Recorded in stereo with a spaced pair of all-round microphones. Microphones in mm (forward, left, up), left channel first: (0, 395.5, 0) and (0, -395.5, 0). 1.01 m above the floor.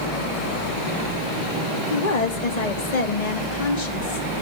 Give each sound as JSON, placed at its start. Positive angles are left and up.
{"t": 1.9, "sound": "a woman speaking", "side_deg": 55, "distance_m": 1.6}